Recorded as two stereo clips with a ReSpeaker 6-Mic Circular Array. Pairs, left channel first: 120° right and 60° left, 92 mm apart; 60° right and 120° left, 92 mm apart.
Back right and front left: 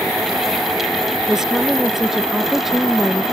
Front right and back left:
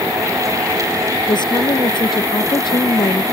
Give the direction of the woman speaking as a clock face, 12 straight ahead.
1 o'clock.